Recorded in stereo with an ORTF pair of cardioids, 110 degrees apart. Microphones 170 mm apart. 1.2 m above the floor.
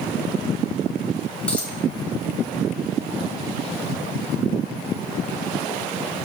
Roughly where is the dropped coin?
Ahead.